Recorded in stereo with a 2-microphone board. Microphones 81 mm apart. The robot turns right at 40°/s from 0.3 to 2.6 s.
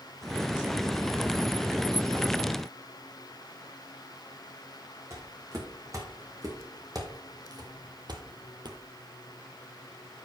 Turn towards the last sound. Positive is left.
turn(degrees=-60)  # may be behind; listen again after turning